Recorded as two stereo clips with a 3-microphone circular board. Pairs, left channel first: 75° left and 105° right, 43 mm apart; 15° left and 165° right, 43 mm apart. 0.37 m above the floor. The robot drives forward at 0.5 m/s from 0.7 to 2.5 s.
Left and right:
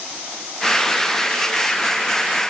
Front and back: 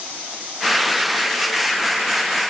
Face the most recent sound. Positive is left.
No sound to turn to.